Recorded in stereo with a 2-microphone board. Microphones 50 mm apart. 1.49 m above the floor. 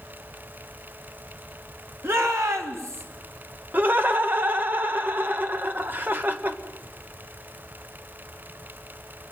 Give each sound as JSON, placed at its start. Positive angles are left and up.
{"t": 2.0, "sound": "a shout", "side_deg": -55, "distance_m": 2.5}
{"t": 3.7, "sound": "laughter", "side_deg": -40, "distance_m": 1.8}